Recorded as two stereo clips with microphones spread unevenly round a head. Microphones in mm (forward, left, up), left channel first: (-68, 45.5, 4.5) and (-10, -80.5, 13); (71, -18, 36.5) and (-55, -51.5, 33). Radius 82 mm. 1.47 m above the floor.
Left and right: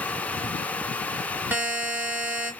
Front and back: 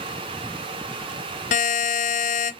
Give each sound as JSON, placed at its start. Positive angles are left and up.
{"t": 1.5, "sound": "a buzzer", "azimuth_deg": 15, "distance_m": 0.6}